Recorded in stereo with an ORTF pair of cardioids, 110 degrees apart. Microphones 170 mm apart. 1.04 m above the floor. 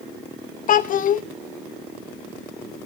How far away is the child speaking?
About 1.0 m.